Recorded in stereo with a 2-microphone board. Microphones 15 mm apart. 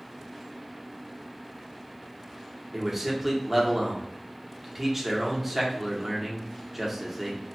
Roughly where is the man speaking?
Centre.